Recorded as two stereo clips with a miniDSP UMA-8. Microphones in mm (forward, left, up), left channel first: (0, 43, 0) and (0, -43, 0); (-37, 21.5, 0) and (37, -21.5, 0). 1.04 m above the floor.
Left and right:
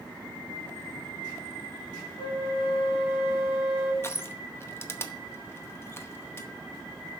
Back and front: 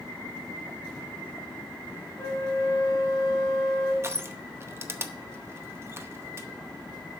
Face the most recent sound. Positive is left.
turn(degrees=30)